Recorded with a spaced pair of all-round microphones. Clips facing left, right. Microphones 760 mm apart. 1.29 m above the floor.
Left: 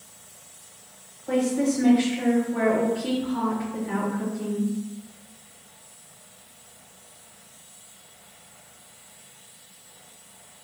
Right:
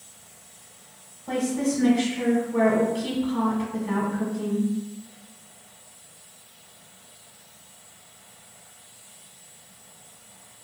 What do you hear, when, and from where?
1.3 s a woman speaking: 60° right (ahead or behind), 0.9 m